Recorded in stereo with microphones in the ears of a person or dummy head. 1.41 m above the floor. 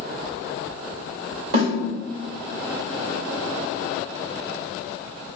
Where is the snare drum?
55° right (ahead or behind), 1.8 m.